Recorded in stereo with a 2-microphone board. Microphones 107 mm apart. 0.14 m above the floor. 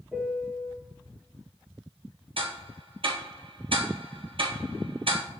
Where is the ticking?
60° right (ahead or behind), 1.1 m.